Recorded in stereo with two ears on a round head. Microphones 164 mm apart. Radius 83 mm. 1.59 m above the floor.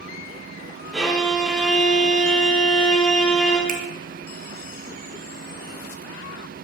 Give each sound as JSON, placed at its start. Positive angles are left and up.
{"t": 0.9, "sound": "a violin", "side_deg": 0, "distance_m": 1.2}
{"t": 3.7, "sound": "a finger snap", "side_deg": -50, "distance_m": 0.8}